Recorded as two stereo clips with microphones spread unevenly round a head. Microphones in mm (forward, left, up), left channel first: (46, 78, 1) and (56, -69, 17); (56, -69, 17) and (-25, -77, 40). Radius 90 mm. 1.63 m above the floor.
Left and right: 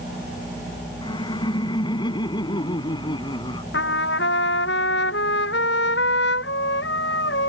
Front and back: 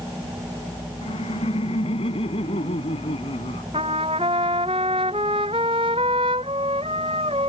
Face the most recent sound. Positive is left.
turn(degrees=125)